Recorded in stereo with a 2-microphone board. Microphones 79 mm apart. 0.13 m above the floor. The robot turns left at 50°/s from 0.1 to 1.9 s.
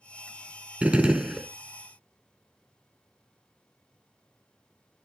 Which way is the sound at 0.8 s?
15° right (ahead or behind).